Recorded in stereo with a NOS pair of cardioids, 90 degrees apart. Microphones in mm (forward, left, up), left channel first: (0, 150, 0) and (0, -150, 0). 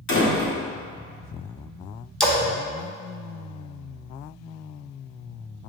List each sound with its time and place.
0.1 s a door slam: 65° left, 1.8 m
2.2 s a splash: 5° left, 1.0 m